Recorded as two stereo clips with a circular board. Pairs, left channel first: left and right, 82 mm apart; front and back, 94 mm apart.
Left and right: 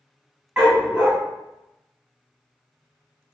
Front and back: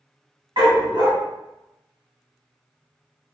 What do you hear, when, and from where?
0.6 s a dog barking: 165° right, 1.0 m